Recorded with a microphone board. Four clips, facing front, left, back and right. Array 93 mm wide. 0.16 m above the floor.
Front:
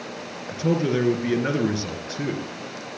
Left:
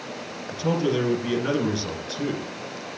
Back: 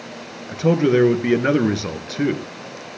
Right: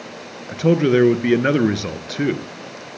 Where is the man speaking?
120° right, 1.8 m.